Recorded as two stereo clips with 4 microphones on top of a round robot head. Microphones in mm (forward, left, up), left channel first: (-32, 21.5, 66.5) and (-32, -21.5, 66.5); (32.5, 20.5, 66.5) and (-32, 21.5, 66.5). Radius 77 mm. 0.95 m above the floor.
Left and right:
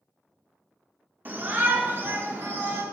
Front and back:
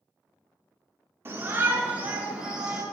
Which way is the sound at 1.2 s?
130° right.